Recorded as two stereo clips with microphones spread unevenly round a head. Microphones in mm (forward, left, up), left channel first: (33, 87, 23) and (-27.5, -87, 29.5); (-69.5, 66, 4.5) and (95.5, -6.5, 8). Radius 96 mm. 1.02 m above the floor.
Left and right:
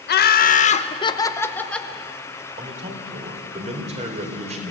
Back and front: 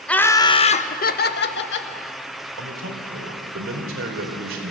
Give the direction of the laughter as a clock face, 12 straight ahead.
10 o'clock.